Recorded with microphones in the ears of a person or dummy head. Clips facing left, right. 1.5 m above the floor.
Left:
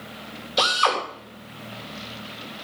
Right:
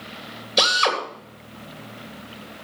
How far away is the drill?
About 3 m.